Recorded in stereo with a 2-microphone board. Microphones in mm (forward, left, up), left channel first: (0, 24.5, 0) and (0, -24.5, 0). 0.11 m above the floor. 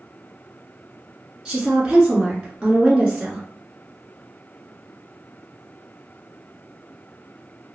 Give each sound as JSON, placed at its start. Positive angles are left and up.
{"t": 1.4, "sound": "a woman speaking", "side_deg": -15, "distance_m": 1.2}